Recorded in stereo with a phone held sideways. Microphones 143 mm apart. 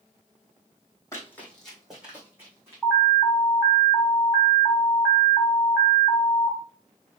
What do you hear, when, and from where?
1.1 s running footsteps: 20° left (ahead or behind), 2.0 m; by 2.8 s 20° right (ahead or behind), 3 m
2.8 s an alarm: 5° left (ahead or behind), 2.5 m